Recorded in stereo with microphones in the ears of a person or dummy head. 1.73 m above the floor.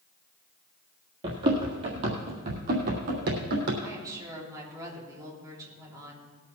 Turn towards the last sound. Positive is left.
turn(degrees=-20)  # may be behind; listen again after turning